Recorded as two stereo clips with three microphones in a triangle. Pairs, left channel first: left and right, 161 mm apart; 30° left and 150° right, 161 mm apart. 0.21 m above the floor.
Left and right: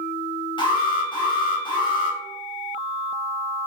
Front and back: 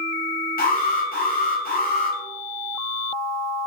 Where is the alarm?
35° left, 3.5 m.